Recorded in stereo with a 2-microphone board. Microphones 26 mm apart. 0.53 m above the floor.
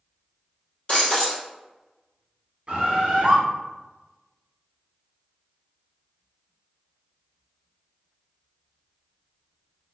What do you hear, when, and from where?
0.9 s breaking glass: 45° left (ahead or behind), 1.9 m
2.7 s a bird: 45° right (ahead or behind), 1.4 m